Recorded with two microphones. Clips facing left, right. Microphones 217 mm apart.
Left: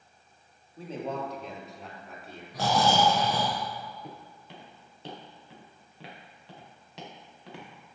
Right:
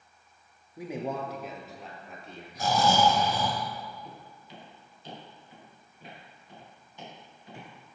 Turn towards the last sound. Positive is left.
turn(degrees=75)  # may be behind; listen again after turning